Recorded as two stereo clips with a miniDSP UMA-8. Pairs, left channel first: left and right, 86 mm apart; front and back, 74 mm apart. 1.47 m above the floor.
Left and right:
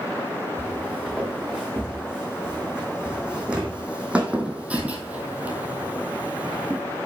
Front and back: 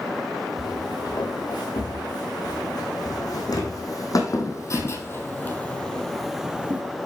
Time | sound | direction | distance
0.6 | footsteps | 10° right | 5.5 m